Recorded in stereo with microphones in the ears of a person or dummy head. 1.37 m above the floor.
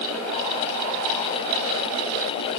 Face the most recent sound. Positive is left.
No sound to turn to.